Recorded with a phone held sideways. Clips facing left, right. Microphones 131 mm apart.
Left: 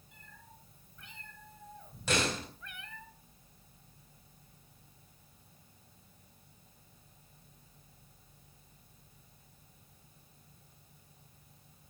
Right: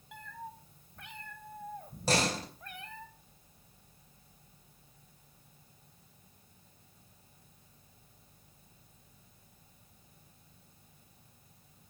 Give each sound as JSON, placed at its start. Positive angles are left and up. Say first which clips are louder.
{"t": 0.1, "sound": "a cat meowing", "louder": "right 13 dB", "side_deg": -80, "distance_m": 3.0}
{"t": 2.1, "sound": "a door slam", "louder": "right 2 dB", "side_deg": -35, "distance_m": 4.0}